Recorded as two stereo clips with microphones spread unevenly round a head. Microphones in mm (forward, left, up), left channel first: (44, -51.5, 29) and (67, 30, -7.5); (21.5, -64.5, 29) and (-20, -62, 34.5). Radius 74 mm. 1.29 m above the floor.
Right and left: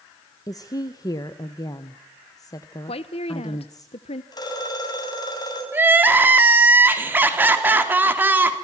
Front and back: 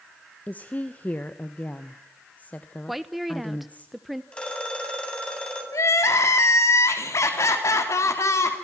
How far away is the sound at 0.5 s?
About 1.2 m.